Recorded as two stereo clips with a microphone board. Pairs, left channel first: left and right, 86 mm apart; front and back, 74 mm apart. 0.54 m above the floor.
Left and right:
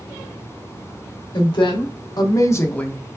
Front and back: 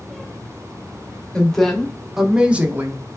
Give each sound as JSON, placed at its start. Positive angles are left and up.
{"t": 1.3, "sound": "a woman speaking", "azimuth_deg": 80, "distance_m": 1.5}